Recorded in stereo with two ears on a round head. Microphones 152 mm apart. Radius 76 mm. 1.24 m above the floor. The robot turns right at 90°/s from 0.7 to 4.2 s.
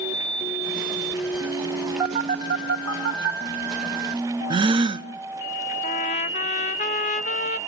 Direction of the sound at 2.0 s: Centre (ahead or behind).